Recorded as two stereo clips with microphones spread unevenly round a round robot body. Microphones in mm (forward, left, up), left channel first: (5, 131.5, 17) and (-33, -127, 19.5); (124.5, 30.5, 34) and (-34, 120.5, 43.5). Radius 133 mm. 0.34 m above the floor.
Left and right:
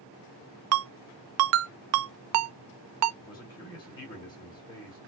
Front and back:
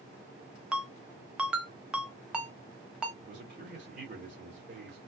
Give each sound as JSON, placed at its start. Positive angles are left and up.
{"t": 0.7, "sound": "a ringtone", "azimuth_deg": -125, "distance_m": 0.5}
{"t": 3.2, "sound": "a man speaking", "azimuth_deg": 150, "distance_m": 1.9}